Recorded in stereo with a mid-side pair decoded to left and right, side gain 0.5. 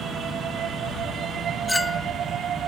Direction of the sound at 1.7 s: 10° left.